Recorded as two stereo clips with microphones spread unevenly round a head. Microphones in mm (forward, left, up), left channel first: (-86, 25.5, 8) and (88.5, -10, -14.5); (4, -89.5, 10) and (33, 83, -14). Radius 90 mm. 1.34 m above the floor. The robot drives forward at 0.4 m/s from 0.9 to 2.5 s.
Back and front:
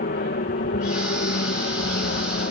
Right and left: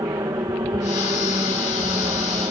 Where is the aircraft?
150° left.